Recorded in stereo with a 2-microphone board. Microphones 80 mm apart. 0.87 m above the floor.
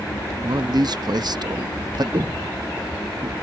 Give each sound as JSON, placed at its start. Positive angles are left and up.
{"t": 0.4, "sound": "a man speaking", "side_deg": -55}
{"t": 2.1, "sound": "footsteps", "side_deg": -65}